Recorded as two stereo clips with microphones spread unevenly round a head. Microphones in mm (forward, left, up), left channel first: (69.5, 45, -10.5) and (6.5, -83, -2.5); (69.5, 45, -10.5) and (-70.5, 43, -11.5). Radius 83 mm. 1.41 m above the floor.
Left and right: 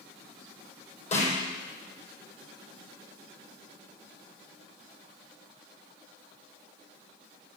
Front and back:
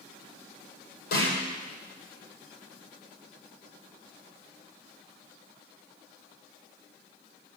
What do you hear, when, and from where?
1.1 s a snare drum: 20° left, 7.5 m